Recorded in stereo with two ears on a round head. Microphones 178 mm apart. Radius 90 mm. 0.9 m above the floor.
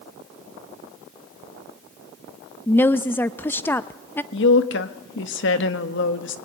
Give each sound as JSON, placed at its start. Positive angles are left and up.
{"t": 2.7, "sound": "a woman speaking", "side_deg": 10, "distance_m": 0.6}
{"t": 4.3, "sound": "a woman speaking", "side_deg": 60, "distance_m": 1.6}